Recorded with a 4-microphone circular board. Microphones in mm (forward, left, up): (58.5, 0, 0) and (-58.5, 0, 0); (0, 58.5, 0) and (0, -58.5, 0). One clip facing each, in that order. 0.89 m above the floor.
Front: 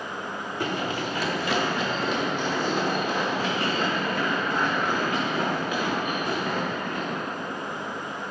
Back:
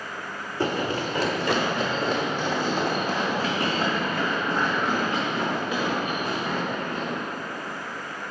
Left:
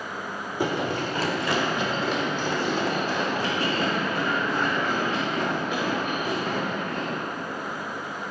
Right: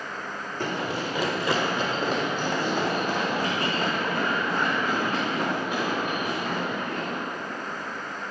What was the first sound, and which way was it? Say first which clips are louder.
Running footsteps: back 4 dB, left 3 dB; 165° left.